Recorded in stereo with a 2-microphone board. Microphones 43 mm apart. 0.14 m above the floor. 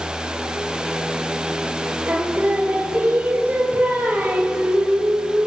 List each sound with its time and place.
2.1 s singing: 50° right (ahead or behind), 0.5 m